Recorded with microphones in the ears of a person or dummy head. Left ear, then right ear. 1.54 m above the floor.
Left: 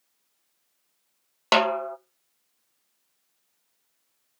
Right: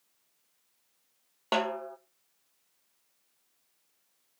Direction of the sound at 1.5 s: 35° left (ahead or behind).